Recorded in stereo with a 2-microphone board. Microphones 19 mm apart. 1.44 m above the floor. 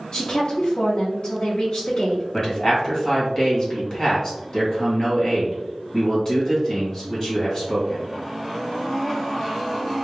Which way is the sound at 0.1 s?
60° left (ahead or behind).